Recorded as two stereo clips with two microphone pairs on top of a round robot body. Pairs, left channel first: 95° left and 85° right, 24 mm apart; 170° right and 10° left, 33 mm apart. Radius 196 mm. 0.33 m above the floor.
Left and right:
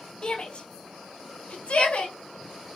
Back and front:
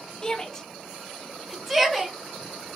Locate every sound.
0.2 s a shout: 135° left, 1.5 m; by 2.8 s 90° left, 2 m